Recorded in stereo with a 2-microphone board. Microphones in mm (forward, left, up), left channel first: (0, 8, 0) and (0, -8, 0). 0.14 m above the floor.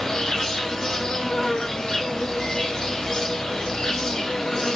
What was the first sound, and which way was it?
An insect, 40° left (ahead or behind).